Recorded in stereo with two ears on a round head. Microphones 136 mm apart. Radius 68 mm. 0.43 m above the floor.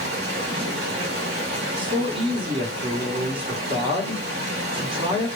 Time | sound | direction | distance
0.0 | running water | 75° right (ahead or behind) | 1.7 m
1.8 | a man speaking | 35° right (ahead or behind) | 1.3 m